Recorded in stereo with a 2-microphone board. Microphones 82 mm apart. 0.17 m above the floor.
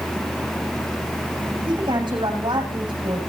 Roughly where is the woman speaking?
Right.